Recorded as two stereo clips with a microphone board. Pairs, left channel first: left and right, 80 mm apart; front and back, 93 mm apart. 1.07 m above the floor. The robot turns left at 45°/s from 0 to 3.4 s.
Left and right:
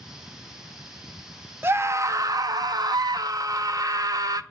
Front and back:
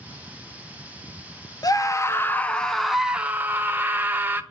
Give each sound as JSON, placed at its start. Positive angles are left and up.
{"t": 1.6, "sound": "a scream", "azimuth_deg": -35, "distance_m": 0.6}